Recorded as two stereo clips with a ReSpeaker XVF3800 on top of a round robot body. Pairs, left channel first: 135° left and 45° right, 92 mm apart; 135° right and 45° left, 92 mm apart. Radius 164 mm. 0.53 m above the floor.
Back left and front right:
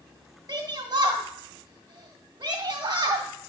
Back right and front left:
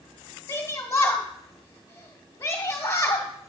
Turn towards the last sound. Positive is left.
turn(degrees=-85)